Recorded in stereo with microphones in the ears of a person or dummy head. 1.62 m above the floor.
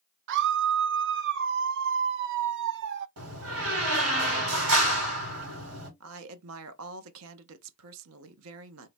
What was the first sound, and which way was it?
A scream, 65° right (ahead or behind).